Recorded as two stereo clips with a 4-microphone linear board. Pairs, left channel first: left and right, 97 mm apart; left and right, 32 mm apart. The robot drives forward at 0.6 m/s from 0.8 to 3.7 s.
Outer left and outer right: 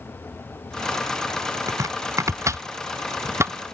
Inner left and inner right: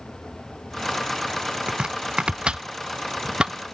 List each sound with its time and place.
1.7 s chopping: 35° right (ahead or behind); by 3.7 s 25° right (ahead or behind)